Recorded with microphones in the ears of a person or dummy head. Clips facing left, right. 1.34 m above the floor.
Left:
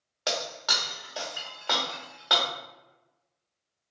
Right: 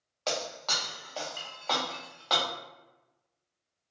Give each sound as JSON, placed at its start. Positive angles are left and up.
{"t": 0.3, "sound": "breaking glass", "side_deg": 15, "distance_m": 0.8}